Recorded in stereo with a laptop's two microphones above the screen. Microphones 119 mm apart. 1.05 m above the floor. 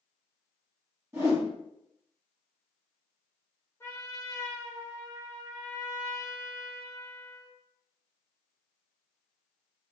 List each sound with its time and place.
1.1 s a whoosh: 25° right (ahead or behind), 1.4 m
3.8 s a trumpet: 25° left (ahead or behind), 0.7 m